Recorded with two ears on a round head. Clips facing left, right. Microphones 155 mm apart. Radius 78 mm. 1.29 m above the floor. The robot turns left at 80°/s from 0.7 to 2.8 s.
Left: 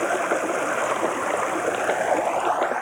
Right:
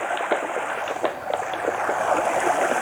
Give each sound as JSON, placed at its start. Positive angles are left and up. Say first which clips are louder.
{"t": 0.0, "sound": "running water", "louder": "left 2 dB", "azimuth_deg": 125}